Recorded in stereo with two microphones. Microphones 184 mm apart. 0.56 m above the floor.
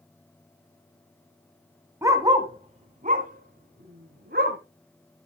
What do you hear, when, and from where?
2.0 s a dog barking: 15° right (ahead or behind), 1.4 m; by 4.6 s 60° right (ahead or behind), 3 m